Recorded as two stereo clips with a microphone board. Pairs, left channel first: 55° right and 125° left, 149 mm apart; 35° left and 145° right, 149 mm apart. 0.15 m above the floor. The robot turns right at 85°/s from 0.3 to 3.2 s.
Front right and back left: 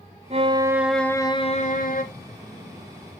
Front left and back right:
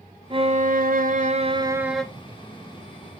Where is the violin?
160° left, 1.0 m; by 2.0 s 50° right, 1.0 m.